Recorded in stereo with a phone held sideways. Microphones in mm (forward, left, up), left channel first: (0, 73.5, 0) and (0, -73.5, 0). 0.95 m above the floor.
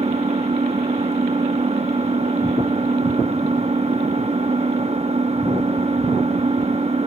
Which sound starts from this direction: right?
An engine running, at 0.0 s.